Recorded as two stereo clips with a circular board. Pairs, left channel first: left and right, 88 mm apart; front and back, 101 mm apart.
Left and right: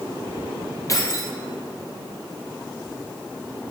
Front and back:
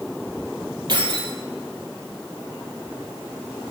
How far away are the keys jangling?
About 2.5 m.